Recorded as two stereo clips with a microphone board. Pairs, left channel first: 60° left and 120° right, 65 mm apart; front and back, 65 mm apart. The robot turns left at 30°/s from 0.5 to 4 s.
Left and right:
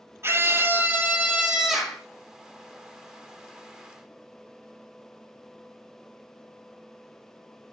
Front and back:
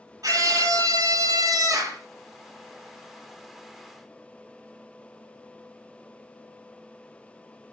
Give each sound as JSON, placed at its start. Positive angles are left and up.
{"t": 0.2, "sound": "a scream", "azimuth_deg": -165, "distance_m": 4.0}